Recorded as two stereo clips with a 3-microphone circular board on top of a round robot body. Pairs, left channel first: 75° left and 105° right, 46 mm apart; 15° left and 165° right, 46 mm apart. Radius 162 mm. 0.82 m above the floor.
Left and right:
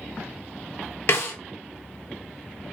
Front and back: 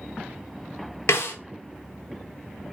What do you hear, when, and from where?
1.1 s a snare drum: 45° left, 0.6 m